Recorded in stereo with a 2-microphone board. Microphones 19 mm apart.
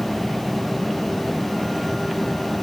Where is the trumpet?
No trumpet in this recording.